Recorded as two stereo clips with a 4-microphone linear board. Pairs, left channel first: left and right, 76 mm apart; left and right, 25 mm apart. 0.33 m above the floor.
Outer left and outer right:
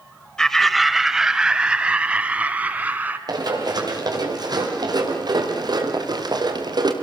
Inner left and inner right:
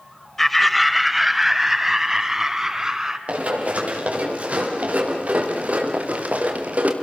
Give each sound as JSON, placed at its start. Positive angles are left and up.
{"t": 0.4, "sound": "laughter", "side_deg": 10, "distance_m": 1.0}
{"t": 3.3, "sound": "running footsteps", "side_deg": -60, "distance_m": 8.5}